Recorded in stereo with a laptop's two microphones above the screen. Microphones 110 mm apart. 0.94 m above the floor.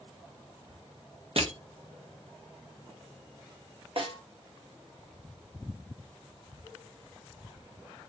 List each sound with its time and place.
1.4 s crushing: 60° right (ahead or behind), 1.0 m
4.0 s a snare drum: 55° right (ahead or behind), 0.9 m